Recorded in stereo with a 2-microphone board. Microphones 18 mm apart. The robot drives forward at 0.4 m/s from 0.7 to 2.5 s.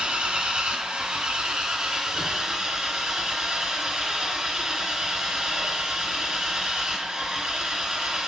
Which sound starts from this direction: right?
An engine running, at 0.0 s.